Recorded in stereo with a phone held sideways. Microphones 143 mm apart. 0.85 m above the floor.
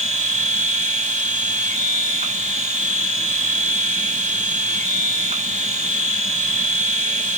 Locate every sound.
0.0 s a machine running: 55° right (ahead or behind), 1.2 m